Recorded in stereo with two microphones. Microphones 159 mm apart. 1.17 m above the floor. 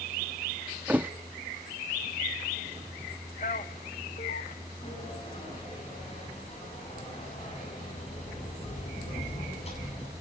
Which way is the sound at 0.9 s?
10° right (ahead or behind).